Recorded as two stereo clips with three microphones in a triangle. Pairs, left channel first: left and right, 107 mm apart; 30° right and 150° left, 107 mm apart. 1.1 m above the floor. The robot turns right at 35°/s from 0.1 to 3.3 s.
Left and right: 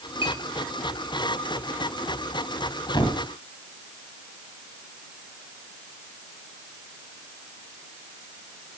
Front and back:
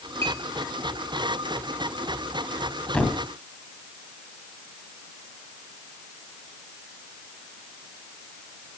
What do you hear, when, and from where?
0.2 s a clink: 125° left, 4 m; by 0.4 s 130° left, 4 m
2.9 s a thud: 45° left, 2 m; by 3.2 s 60° left, 2 m